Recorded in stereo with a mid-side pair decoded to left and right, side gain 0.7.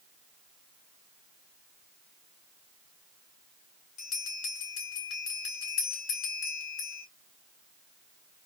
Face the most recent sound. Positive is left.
turn(degrees=55)